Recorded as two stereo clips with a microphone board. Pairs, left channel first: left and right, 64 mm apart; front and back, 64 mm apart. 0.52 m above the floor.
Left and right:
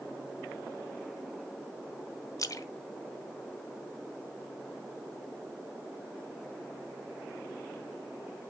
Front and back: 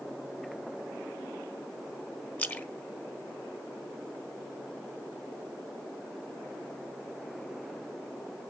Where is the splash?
60° left, 1.1 m.